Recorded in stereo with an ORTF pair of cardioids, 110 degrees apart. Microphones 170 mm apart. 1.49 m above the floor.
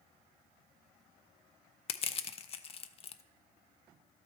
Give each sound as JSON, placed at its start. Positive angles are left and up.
{"t": 1.9, "sound": "crushing", "azimuth_deg": 35, "distance_m": 0.5}